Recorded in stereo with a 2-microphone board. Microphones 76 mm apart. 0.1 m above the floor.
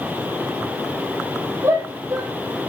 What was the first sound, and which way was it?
A shout, 50° right (ahead or behind).